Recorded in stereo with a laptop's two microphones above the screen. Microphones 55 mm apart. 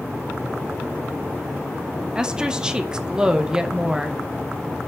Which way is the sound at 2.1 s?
15° right (ahead or behind).